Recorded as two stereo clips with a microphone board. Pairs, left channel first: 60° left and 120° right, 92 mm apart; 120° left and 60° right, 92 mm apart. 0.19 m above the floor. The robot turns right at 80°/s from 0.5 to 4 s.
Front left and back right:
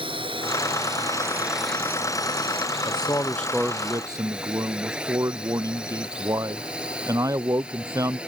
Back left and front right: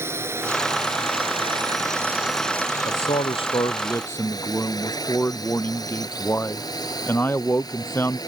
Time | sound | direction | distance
0.0 | a drone | 120° right | ?
2.9 | a man speaking | 95° left | ?